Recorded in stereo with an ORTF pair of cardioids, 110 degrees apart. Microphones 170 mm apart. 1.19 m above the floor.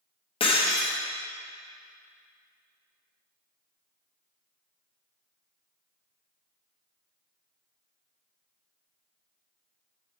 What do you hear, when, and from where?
0.4 s breaking glass: 35° left, 1.1 m